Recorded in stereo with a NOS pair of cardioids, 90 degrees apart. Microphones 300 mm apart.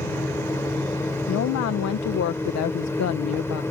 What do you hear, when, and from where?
0.0 s a fan: 10° left
1.3 s a woman speaking: 60° left